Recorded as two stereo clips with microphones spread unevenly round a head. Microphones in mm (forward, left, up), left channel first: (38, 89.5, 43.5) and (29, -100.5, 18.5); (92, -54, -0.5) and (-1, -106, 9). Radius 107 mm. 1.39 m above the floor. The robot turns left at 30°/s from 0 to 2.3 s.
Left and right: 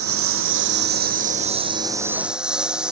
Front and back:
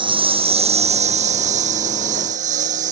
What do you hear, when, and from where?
0.0 s a lawn mower: 110° right; by 2.9 s straight behind